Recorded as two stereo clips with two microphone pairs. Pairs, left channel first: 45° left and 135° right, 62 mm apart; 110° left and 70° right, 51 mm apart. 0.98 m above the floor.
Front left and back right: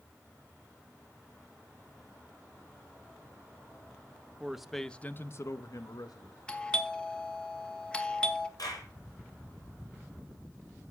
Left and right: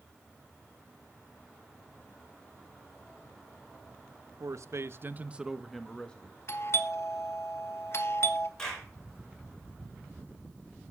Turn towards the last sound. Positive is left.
turn(degrees=35)